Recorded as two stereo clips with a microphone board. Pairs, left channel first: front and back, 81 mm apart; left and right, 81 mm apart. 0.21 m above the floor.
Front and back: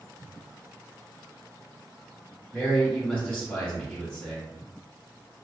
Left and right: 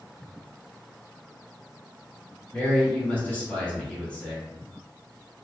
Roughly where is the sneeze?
No sneeze in this recording.